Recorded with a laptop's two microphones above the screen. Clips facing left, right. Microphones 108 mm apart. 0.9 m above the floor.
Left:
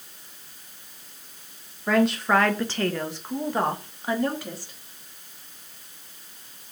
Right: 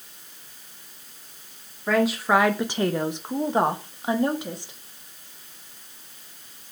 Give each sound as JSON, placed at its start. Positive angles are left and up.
{"t": 1.9, "sound": "a woman speaking", "side_deg": 0, "distance_m": 0.5}